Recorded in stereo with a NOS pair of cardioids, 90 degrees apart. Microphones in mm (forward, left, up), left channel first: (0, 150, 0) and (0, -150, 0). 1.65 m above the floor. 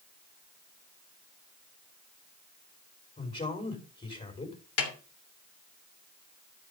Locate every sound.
3.2 s a man speaking: 25° left, 4.5 m
4.8 s a snare drum: 55° left, 3 m